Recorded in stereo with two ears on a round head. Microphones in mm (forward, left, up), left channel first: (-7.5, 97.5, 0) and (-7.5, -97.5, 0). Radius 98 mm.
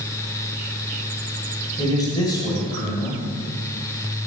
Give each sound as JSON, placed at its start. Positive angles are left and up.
{"t": 1.8, "sound": "a man speaking", "side_deg": 20, "distance_m": 1.5}